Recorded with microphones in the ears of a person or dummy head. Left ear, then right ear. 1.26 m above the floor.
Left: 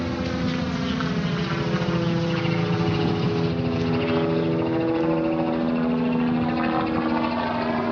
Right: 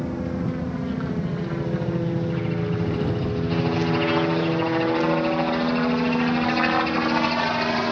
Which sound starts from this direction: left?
A helicopter, at 0.0 s.